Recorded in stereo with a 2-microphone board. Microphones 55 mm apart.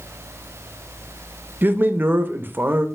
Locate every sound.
1.6 s a man speaking: 35° right (ahead or behind), 0.5 m